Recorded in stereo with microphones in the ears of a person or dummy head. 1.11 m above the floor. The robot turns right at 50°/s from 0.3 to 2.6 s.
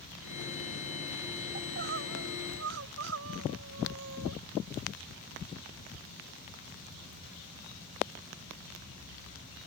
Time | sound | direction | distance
1.6 | crying | 135° right | ?